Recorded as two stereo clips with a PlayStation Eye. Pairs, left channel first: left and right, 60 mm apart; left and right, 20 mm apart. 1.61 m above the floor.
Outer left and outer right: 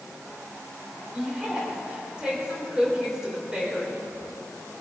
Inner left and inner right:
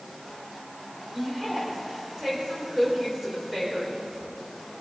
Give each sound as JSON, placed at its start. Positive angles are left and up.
{"t": 1.1, "sound": "a woman speaking", "side_deg": -15, "distance_m": 4.5}